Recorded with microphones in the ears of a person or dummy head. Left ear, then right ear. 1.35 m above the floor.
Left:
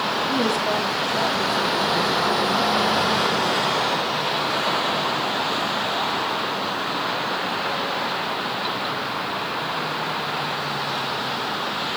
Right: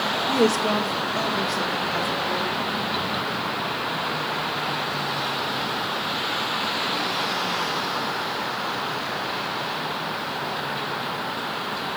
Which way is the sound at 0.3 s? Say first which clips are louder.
Right 4 dB; 70° right (ahead or behind).